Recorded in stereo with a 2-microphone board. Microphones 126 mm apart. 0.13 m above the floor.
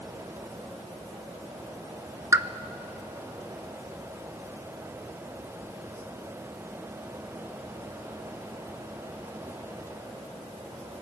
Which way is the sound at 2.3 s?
25° right (ahead or behind).